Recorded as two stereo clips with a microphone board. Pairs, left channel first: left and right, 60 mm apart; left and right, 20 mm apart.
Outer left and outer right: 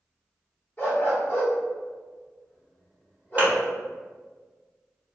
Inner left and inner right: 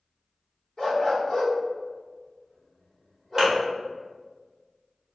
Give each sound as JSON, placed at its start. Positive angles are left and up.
{"t": 0.8, "sound": "a dog barking", "side_deg": 35, "distance_m": 1.4}
{"t": 3.4, "sound": "a thud", "side_deg": -25, "distance_m": 1.0}